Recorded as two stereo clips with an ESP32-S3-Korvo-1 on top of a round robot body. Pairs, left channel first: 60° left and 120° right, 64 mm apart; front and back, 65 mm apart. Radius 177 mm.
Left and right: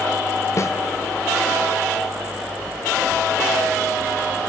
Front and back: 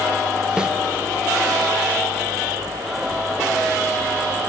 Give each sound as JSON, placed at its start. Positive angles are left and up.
{"t": 0.6, "sound": "a snare drum", "azimuth_deg": 105, "distance_m": 0.6}